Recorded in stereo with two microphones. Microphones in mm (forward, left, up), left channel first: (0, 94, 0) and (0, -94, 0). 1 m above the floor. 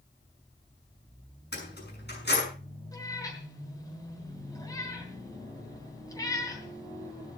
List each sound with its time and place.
1.5 s keys jangling: 55° left (ahead or behind), 6.5 m
2.9 s a cat meowing: 15° left (ahead or behind), 3 m